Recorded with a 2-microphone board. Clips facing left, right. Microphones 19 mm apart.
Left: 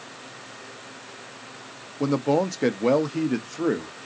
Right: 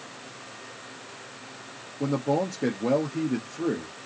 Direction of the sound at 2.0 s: 50° left (ahead or behind).